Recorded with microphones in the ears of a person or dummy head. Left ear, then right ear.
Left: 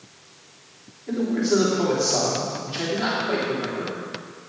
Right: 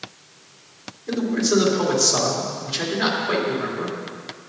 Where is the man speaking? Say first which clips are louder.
Right 1 dB; 20° right (ahead or behind), 3.5 m.